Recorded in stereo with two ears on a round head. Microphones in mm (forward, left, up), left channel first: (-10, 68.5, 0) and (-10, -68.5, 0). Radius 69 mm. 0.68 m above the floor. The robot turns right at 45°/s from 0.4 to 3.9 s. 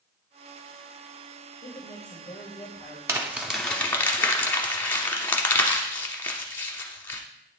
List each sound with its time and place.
1.6 s a woman speaking: 115° left, 2.5 m; by 3.0 s straight behind, 2.5 m
3.1 s crumpling: 20° right (ahead or behind), 0.9 m; by 7.2 s 15° left (ahead or behind), 0.9 m